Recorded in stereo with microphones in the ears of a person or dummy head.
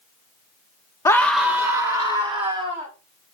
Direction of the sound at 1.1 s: 20° left (ahead or behind).